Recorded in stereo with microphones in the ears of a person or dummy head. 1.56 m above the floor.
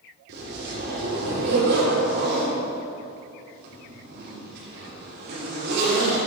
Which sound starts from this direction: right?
A zipper, at 0.3 s.